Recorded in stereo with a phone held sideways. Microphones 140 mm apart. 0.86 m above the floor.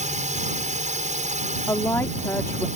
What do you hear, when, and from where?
0.0 s a drone: 65° right (ahead or behind)
1.7 s a woman speaking: 20° left (ahead or behind)